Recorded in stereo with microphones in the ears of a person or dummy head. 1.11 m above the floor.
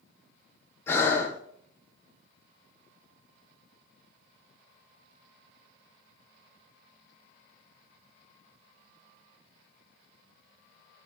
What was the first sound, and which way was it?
Breathing, 10° left (ahead or behind).